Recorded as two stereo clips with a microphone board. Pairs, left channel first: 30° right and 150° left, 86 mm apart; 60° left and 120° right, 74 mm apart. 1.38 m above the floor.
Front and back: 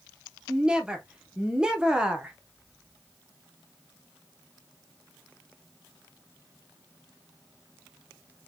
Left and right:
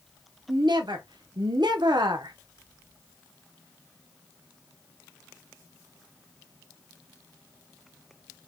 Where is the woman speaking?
130° right, 0.6 m.